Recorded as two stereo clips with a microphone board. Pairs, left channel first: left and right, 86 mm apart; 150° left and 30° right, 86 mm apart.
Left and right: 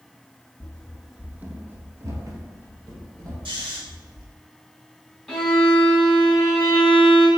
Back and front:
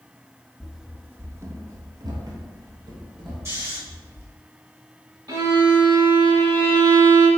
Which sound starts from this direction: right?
Snoring, at 3.5 s.